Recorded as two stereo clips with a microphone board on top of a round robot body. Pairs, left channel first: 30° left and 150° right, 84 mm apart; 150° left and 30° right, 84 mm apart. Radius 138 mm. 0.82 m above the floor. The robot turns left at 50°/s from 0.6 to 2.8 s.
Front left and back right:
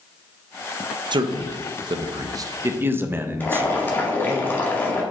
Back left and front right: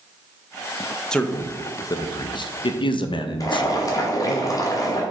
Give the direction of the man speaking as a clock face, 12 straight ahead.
4 o'clock.